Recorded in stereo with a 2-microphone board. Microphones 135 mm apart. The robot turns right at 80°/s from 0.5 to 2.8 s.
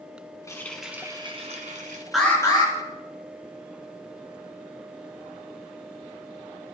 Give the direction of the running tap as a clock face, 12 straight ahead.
7 o'clock.